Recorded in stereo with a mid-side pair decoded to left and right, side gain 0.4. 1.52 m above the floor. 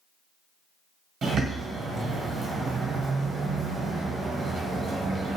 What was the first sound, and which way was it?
A bird, 65° right.